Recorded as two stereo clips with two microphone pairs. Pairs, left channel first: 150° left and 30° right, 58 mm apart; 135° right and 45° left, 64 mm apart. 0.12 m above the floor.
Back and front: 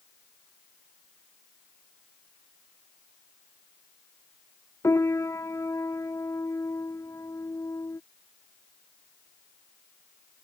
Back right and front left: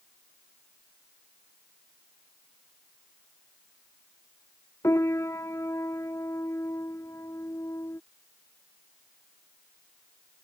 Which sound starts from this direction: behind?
A piano, at 4.8 s.